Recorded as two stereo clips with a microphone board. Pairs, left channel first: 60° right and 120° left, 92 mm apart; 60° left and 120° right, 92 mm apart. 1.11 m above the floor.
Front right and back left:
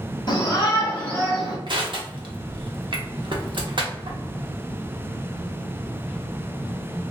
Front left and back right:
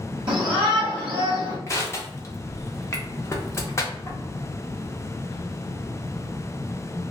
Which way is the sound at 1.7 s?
115° left.